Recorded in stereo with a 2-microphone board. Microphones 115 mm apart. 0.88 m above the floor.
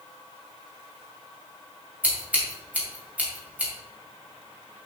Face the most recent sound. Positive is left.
turn(degrees=-10)  # may be behind; listen again after turning